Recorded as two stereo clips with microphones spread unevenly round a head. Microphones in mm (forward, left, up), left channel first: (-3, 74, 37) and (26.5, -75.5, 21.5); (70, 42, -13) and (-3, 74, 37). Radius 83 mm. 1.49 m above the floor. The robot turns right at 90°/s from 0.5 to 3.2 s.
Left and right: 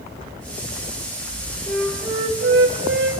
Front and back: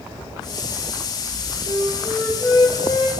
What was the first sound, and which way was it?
A flute, 175° left.